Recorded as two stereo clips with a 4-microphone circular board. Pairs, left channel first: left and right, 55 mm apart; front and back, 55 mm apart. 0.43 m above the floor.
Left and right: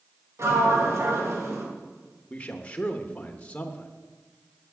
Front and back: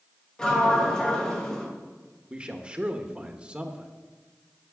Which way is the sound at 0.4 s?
75° right.